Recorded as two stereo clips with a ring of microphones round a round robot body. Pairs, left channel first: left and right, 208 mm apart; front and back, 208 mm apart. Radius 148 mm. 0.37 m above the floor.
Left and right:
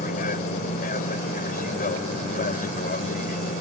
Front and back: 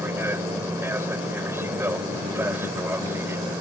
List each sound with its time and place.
0.0 s an aircraft: 110° left